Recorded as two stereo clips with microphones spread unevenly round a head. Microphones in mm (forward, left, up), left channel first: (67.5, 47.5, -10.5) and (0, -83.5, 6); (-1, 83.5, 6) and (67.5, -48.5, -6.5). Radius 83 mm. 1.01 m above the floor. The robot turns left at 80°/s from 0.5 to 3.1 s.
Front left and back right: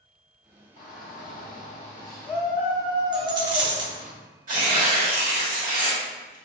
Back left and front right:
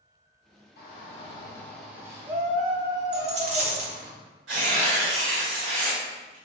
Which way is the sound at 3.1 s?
85° right.